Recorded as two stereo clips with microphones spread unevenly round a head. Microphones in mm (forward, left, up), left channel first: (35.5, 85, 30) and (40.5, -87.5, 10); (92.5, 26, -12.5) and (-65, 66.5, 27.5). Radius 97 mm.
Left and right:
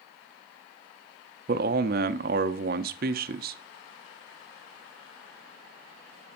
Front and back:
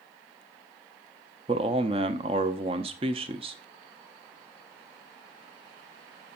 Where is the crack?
I don't hear a crack.